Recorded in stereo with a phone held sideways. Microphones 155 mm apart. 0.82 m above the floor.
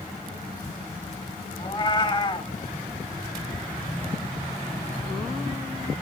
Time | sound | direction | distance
1.6 | a cat meowing | 30° left (ahead or behind) | 0.7 m